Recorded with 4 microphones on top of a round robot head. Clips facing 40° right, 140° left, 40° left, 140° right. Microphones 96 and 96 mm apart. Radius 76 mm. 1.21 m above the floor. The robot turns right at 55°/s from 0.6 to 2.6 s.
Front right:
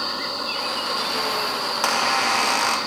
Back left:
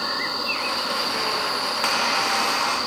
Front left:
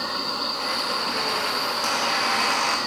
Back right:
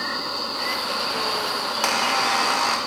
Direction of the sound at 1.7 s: 115° right.